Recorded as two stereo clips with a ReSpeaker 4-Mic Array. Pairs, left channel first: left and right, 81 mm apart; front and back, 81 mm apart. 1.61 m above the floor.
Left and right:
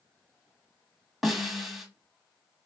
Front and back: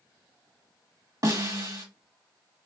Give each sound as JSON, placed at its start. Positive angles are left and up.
{"t": 1.2, "sound": "a snare drum", "azimuth_deg": 180, "distance_m": 1.5}